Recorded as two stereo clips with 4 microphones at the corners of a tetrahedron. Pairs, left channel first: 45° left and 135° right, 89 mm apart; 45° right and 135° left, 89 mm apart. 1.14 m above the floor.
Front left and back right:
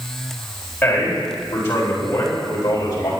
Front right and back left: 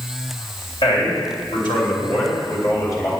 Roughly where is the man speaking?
Ahead right.